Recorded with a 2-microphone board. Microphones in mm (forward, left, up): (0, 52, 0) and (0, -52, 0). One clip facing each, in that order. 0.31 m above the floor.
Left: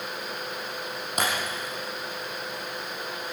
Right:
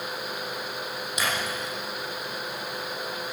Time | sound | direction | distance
1.2 | breaking glass | 50° left (ahead or behind) | 7.5 m